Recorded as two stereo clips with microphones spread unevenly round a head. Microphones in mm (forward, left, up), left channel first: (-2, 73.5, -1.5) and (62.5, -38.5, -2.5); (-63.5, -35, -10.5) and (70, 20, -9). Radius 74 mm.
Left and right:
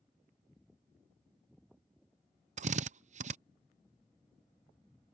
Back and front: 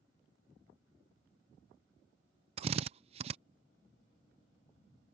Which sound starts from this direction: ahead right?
A drill, at 2.6 s.